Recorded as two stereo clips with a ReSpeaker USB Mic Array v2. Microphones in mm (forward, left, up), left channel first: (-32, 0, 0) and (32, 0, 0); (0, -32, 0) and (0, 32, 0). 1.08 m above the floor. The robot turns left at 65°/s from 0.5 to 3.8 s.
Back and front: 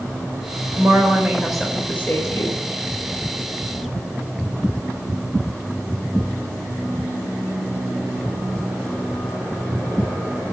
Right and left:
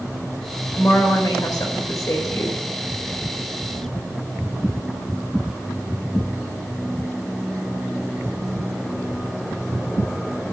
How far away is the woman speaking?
About 4.5 m.